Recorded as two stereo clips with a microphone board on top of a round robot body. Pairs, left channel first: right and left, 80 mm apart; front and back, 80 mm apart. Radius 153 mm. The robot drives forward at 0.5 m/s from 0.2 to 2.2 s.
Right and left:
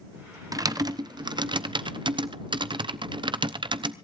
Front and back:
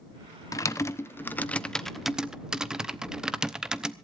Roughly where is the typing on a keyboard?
Ahead left.